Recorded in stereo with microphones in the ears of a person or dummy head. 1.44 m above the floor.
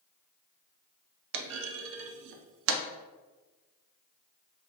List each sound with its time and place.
1.3 s a clunk: 70° right (ahead or behind), 0.5 m